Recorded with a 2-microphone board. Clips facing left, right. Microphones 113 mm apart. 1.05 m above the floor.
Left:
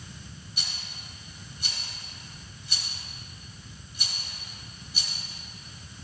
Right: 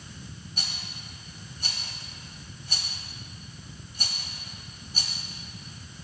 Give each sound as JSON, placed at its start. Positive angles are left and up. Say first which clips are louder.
{"t": 0.6, "sound": "a rattle", "louder": "right 3 dB", "side_deg": -45, "distance_m": 1.4}